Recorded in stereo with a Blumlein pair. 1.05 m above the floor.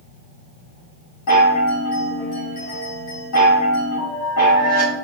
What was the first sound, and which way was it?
A chime, 50° left.